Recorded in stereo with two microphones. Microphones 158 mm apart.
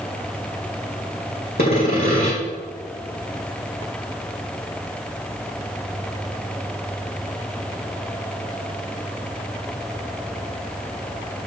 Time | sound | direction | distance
1.6 | sawing | 75° left (ahead or behind) | 4.5 m